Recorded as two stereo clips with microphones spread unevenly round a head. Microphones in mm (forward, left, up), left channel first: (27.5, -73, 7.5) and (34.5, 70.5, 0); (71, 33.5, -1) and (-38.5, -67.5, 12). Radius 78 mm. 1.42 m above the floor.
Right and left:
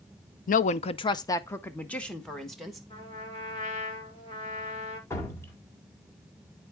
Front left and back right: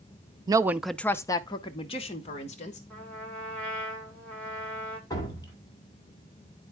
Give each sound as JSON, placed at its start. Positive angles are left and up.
{"t": 0.5, "sound": "a woman speaking", "azimuth_deg": -80, "distance_m": 0.5}
{"t": 2.9, "sound": "a trumpet", "azimuth_deg": -40, "distance_m": 2.5}
{"t": 5.1, "sound": "dripping", "azimuth_deg": -25, "distance_m": 2.0}